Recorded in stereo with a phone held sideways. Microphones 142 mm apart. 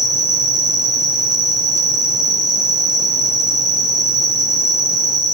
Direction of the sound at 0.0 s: 70° right (ahead or behind).